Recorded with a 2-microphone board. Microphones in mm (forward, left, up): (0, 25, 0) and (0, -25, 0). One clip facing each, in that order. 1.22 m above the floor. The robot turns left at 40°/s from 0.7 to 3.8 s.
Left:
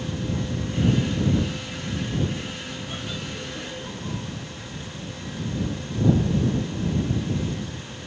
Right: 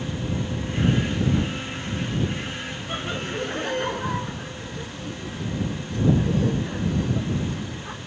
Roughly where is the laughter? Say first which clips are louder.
Right 7 dB; right.